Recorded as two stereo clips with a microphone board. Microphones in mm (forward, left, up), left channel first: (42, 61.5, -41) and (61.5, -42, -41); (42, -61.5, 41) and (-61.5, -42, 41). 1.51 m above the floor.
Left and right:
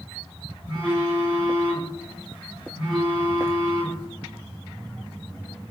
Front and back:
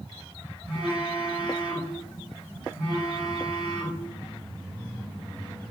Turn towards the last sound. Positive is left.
turn(degrees=-135)